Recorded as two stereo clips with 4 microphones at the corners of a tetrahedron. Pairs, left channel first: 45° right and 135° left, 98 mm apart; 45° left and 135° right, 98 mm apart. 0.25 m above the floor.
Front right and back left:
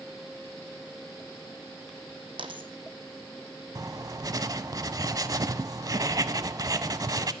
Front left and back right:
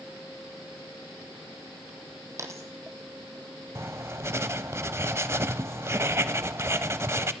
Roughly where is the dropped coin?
Behind.